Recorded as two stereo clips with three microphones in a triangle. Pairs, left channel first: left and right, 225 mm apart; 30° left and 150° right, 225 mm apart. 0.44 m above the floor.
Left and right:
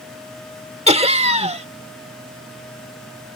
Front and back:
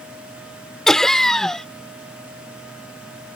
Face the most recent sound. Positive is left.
turn(degrees=-55)